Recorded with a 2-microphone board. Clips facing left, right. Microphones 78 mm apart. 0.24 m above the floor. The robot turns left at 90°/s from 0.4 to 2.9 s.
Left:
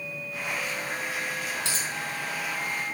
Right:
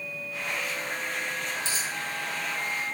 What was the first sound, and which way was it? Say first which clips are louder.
A dropped coin: even; 70° left (ahead or behind).